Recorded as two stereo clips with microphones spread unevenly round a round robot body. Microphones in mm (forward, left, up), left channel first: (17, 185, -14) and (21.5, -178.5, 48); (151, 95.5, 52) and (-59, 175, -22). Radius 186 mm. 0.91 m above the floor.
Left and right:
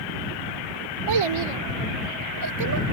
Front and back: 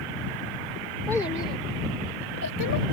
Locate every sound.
1.1 s a child speaking: 105° right; by 2.8 s 45° right